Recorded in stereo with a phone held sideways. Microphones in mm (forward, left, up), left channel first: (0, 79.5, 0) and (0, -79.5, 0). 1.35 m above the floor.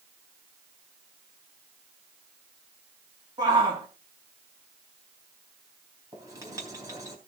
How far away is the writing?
About 4 m.